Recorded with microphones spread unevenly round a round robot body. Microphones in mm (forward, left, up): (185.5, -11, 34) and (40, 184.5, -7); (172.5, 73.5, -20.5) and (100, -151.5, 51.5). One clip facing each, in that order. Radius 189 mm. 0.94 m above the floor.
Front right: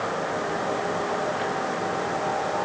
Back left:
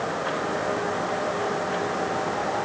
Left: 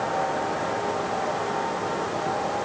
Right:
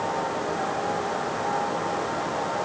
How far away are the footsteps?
I don't hear footsteps.